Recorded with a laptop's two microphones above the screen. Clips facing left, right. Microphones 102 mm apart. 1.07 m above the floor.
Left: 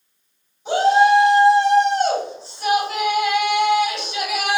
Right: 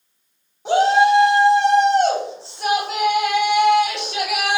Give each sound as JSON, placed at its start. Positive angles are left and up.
{"t": 0.7, "sound": "a shout", "side_deg": -80, "distance_m": 1.5}